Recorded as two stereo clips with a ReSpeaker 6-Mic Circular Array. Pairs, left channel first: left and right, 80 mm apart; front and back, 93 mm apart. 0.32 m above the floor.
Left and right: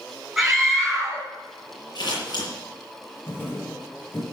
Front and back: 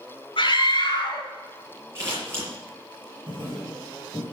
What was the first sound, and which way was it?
A scream, 5° right.